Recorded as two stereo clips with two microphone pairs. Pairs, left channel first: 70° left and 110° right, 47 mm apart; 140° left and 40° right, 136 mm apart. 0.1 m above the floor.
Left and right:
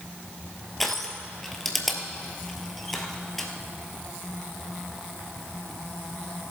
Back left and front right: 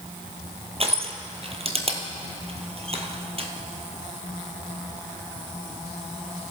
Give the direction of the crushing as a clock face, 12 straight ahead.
12 o'clock.